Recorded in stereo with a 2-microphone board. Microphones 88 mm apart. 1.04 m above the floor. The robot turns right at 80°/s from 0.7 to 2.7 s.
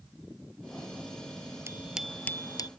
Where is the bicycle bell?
30° right; by 2.7 s 50° left.